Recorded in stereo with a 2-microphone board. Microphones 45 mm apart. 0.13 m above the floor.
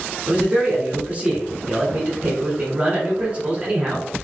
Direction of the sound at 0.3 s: 25° right (ahead or behind).